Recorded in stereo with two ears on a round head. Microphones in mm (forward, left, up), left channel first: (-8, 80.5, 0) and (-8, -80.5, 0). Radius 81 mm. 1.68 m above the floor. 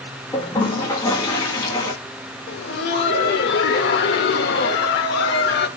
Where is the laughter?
65° left (ahead or behind), 0.7 m.